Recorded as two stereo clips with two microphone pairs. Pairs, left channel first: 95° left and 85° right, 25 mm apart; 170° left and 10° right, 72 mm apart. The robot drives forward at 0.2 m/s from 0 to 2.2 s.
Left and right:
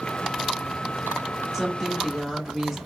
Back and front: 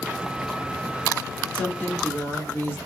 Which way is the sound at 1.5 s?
175° right.